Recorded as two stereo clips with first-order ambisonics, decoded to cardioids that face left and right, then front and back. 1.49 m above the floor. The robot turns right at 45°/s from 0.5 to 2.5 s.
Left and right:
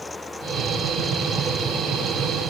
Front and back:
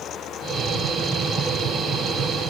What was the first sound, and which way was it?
Only background noise.